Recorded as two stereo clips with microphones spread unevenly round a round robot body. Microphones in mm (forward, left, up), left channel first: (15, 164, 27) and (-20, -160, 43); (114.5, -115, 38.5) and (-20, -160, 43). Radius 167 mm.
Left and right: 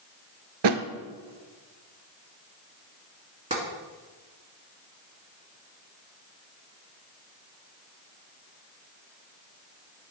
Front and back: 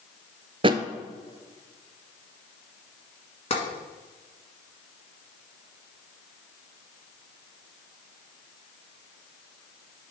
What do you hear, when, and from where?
0.6 s a thud: 110° right, 0.7 m
3.5 s tapping: 25° right, 1.8 m